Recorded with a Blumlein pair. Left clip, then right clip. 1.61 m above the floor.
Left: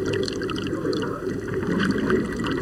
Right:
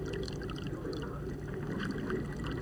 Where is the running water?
35° left.